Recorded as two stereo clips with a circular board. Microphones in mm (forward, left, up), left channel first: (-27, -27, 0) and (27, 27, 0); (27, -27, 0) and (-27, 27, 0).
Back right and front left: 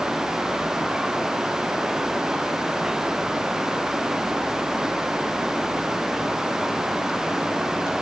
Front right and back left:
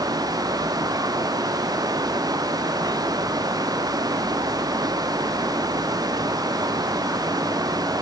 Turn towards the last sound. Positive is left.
No sound to turn to.